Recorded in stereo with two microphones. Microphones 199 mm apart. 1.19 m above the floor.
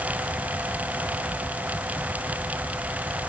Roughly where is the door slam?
I don't hear a door slam.